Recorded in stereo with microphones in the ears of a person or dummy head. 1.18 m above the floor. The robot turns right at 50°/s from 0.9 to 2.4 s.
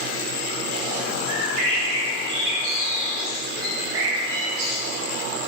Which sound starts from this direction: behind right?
A bird, at 1.3 s.